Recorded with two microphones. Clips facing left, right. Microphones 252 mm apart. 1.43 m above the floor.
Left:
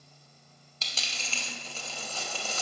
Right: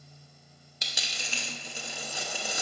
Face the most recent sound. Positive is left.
turn(degrees=-15)  # may be behind; listen again after turning